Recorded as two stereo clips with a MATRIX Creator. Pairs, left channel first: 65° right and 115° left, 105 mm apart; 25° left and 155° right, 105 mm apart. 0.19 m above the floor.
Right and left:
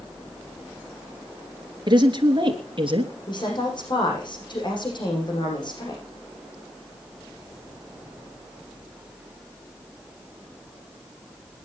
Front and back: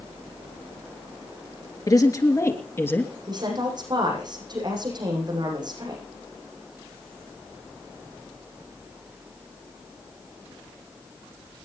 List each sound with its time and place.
1.9 s a woman speaking: 75° left, 3 m; by 3.1 s 90° left, 2.5 m
3.3 s a woman speaking: 110° right, 7.5 m